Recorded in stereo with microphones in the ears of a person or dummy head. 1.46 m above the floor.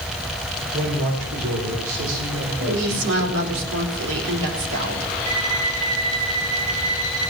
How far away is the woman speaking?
About 4 m.